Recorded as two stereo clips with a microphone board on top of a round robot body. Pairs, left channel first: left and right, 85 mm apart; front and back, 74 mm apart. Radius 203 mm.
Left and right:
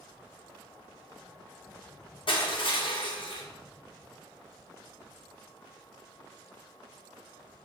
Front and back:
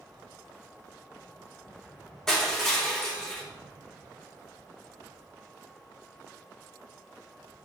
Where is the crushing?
80° left, 1.5 m.